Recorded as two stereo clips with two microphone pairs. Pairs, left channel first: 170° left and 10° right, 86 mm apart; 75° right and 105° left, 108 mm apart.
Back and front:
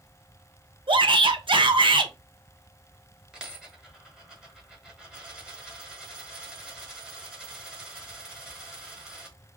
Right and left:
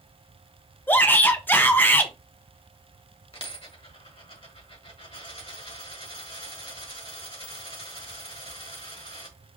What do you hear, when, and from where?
0.9 s a shout: 10° right, 0.8 m
3.3 s a dropped coin: 95° right, 1.7 m